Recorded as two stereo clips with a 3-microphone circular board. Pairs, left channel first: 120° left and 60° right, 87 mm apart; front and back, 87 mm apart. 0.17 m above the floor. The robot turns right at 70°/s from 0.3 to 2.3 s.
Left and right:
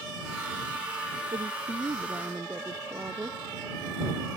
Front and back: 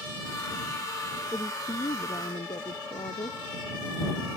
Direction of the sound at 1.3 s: 65° right.